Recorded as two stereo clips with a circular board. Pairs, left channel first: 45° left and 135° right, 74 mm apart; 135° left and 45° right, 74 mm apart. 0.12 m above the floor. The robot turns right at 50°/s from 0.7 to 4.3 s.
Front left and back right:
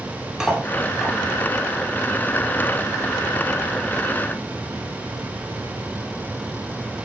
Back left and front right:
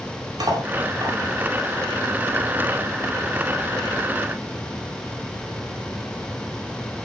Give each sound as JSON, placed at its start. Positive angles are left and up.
{"t": 0.4, "sound": "cutlery clinking", "azimuth_deg": -55, "distance_m": 2.0}